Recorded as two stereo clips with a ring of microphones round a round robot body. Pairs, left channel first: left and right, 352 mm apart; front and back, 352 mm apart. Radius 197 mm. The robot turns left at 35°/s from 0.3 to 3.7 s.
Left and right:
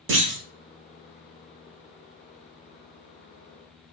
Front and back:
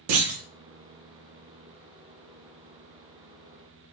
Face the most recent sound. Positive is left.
turn(degrees=100)